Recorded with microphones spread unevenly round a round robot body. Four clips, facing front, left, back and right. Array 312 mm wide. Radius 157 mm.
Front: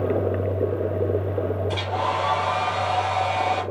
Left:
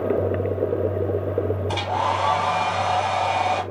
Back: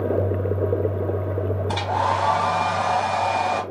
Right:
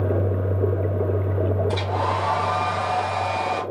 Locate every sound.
1.7 s a hair dryer: 165° left, 1.7 m